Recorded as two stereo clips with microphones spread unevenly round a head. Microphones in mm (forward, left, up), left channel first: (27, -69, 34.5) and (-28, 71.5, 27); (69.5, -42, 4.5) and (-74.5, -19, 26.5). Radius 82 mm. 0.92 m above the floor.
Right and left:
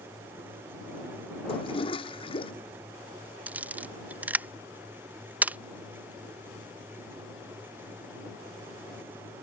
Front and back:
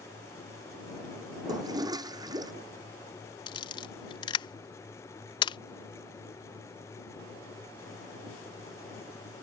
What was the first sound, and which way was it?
A toilet flushing, 125° right.